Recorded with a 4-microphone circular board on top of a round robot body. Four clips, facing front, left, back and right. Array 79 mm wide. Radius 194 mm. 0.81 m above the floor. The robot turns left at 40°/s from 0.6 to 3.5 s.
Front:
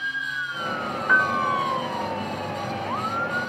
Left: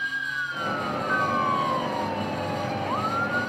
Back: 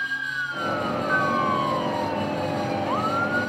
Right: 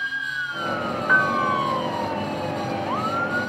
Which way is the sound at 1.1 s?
45° right.